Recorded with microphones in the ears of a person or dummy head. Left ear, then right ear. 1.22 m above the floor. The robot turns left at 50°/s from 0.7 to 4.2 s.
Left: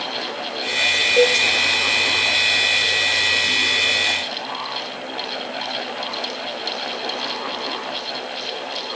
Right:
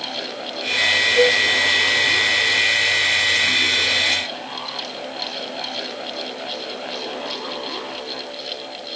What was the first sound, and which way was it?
A cowbell, 50° left (ahead or behind).